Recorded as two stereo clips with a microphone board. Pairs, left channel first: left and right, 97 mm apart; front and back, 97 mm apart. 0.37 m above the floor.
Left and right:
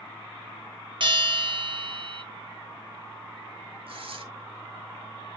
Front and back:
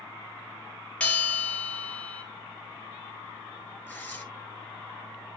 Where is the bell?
75° right, 2 m.